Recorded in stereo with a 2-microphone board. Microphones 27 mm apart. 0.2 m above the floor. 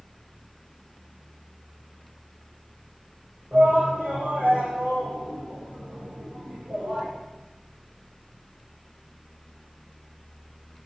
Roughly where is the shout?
Right.